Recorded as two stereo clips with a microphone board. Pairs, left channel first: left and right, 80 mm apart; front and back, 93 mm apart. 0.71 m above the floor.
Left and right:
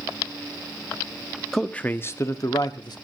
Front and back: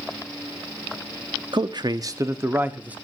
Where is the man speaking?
175° left, 0.9 m; by 3.0 s 105° left, 1.4 m.